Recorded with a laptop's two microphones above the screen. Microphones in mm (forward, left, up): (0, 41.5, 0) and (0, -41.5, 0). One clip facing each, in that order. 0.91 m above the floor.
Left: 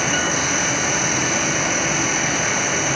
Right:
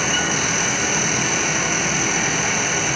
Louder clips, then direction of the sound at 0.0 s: Left 1 dB; 40° left (ahead or behind).